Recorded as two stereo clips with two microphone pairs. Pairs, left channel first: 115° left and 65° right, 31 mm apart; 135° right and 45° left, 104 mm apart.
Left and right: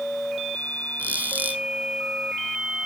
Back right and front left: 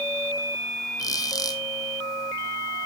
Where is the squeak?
80° right, 0.9 m.